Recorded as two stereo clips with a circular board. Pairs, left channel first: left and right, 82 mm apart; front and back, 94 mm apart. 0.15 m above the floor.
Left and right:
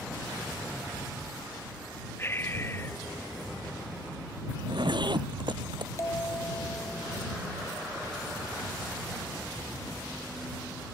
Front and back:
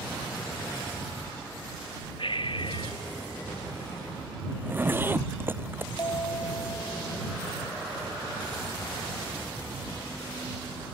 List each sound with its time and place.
2.2 s breathing: 30° left
4.5 s a zipper: 110° right
6.0 s a bell: 35° left